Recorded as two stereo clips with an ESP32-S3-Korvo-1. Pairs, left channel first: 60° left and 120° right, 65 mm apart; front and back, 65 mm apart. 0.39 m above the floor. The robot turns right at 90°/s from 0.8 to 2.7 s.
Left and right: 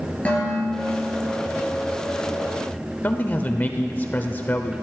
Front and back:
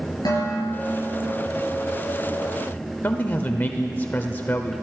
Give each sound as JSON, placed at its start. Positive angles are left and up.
{"t": 0.2, "sound": "dishes clattering", "azimuth_deg": -10, "distance_m": 5.5}
{"t": 3.0, "sound": "a man speaking", "azimuth_deg": 30, "distance_m": 1.0}